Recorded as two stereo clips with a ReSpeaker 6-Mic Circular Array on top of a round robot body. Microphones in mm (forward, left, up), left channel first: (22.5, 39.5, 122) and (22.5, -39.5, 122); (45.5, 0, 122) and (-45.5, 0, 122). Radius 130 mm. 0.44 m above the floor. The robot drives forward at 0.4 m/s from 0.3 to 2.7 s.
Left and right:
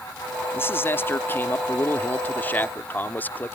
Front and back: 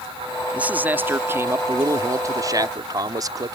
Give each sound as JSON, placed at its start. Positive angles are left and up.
{"t": 0.5, "sound": "a man speaking", "azimuth_deg": 120}